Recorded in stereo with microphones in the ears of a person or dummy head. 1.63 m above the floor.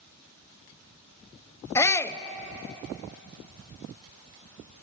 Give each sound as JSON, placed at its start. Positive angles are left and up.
{"t": 1.8, "sound": "a shout", "side_deg": 15, "distance_m": 1.0}